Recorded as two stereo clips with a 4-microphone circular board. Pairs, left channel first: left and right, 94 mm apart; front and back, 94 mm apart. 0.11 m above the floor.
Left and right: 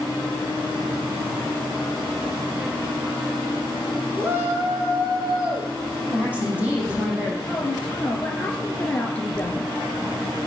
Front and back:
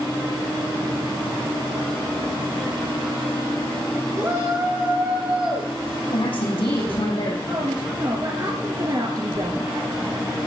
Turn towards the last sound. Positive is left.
turn(degrees=160)